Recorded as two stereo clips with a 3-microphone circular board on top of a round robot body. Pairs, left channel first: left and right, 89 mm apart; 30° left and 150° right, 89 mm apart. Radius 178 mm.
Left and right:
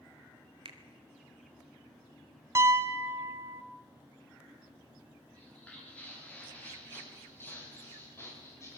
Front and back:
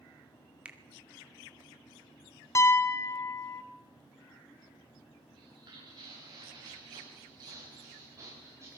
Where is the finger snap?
75° right, 2 m.